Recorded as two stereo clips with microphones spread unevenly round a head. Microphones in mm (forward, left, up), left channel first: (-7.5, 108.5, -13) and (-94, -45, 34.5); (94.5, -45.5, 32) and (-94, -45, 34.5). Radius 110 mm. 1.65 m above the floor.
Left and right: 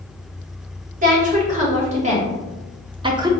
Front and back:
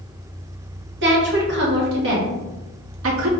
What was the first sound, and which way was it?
A woman speaking, 155° right.